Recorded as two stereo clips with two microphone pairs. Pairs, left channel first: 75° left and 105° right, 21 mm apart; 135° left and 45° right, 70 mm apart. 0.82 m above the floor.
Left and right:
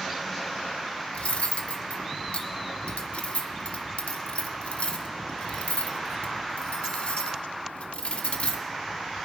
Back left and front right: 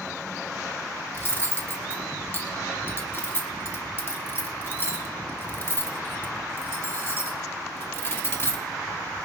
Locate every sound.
1.1 s cutlery clinking: 80° left, 1.0 m